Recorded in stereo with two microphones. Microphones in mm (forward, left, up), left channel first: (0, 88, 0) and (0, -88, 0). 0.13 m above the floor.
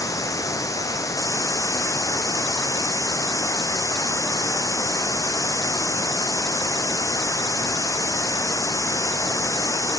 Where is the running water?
20° left (ahead or behind), 0.9 m.